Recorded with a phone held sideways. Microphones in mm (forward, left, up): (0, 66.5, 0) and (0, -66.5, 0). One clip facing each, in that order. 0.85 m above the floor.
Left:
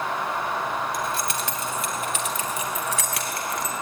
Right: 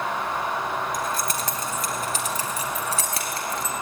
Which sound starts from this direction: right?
Keys jangling, at 0.9 s.